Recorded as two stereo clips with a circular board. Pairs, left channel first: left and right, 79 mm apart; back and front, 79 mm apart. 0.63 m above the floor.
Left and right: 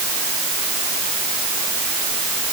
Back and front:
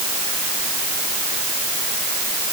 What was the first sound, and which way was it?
Only background noise.